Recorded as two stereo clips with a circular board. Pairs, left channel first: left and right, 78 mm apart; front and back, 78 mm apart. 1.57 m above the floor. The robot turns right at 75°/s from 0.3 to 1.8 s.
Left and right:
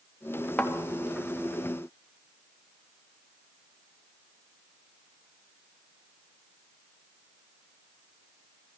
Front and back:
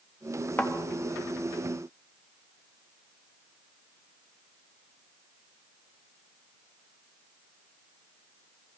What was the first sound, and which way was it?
A thud, 40° left.